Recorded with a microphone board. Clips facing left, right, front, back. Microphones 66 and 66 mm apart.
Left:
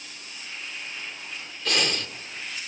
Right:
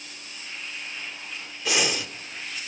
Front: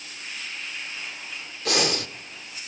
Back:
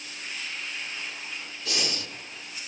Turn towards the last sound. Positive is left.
turn(degrees=-10)